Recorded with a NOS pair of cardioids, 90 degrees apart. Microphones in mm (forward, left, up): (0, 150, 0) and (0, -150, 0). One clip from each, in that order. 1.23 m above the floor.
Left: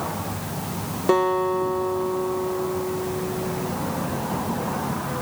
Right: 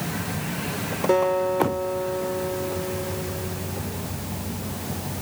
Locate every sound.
1.1 s a guitar: 35° left, 2 m